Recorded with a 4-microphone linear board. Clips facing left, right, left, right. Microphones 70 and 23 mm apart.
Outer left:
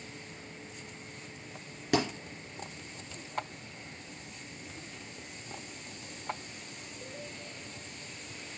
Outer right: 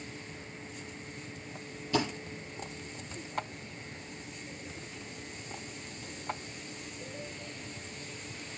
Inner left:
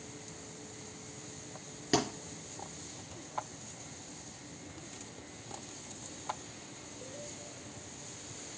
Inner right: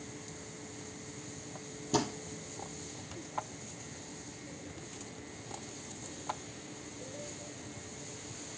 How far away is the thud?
About 4.5 m.